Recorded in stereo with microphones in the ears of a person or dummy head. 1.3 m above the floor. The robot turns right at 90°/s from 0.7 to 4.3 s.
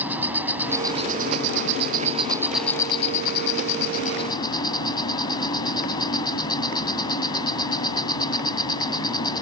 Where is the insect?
175° right; by 9.4 s 150° left.